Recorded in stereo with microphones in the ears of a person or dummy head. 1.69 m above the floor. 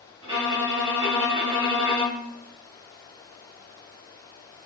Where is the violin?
30° right (ahead or behind), 1.8 m.